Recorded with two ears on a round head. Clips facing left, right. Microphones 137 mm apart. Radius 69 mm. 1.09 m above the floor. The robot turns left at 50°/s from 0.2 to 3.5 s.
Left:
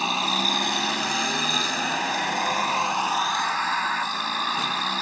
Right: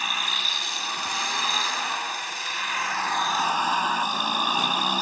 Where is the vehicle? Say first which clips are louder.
Left 7 dB; 155° left; by 5.0 s 10° right.